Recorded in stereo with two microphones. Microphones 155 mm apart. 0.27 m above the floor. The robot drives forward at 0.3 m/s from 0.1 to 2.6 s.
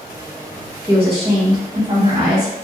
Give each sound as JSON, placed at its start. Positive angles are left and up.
{"t": 0.9, "sound": "a woman speaking", "side_deg": -35, "distance_m": 1.8}